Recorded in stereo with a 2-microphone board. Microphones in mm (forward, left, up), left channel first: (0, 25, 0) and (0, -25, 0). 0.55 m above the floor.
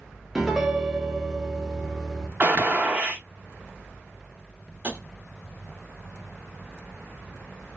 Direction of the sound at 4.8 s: 35° right (ahead or behind).